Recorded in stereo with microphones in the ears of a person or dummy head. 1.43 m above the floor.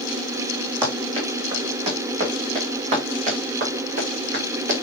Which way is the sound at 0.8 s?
25° right (ahead or behind).